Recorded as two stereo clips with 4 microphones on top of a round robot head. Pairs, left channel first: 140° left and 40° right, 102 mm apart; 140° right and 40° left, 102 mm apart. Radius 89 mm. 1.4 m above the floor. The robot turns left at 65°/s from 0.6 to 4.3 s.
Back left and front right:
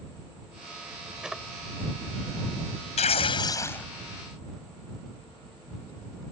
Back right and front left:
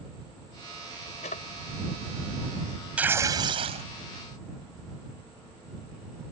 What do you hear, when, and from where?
1.2 s a drawer: 120° right; by 1.4 s 135° right
3.0 s tearing paper: 120° left; by 3.9 s 60° left